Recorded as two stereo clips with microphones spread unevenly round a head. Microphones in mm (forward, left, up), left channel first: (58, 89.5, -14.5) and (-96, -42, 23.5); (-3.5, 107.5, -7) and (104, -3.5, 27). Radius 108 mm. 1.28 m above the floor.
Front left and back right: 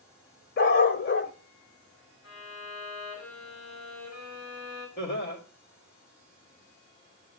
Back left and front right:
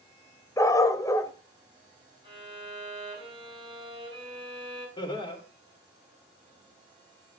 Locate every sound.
0.6 s a dog barking: 60° left, 1.3 m
2.2 s a violin: 5° left, 8 m
5.0 s laughter: 75° left, 4 m